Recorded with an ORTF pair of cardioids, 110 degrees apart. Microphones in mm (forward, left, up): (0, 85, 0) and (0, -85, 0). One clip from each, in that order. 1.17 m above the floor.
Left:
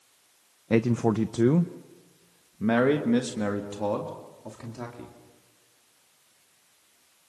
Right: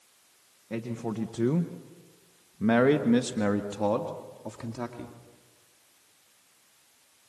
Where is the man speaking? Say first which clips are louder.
Left 10 dB; 65° left, 0.7 m; by 5.1 s 15° right, 2.5 m.